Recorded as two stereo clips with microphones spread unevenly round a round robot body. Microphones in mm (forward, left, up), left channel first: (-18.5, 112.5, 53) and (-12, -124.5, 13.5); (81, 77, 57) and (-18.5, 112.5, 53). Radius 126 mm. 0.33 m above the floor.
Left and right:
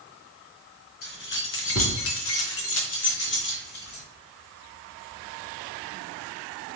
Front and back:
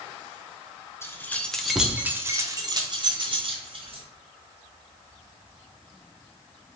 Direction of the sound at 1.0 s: 45° left.